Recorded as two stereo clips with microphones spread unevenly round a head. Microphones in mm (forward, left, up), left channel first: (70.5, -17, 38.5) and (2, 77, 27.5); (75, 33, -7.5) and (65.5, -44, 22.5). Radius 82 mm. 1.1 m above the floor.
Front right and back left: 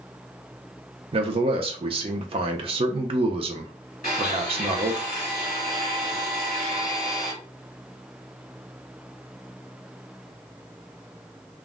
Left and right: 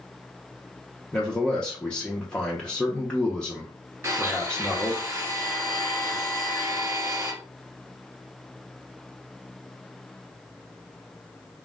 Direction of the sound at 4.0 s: 100° right.